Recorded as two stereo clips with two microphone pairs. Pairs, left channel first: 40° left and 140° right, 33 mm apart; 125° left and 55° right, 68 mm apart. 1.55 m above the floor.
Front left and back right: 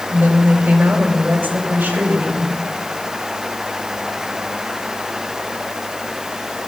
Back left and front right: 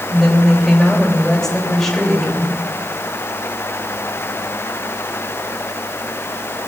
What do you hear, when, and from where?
0.1 s a woman speaking: 155° right, 3 m